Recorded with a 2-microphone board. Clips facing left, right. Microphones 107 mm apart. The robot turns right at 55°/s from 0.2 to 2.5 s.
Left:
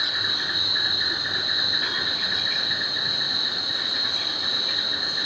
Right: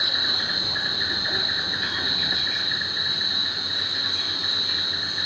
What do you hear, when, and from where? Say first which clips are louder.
0.0 s an insect: even; 75° right, 1.6 m; by 5.3 s 55° left, 1.6 m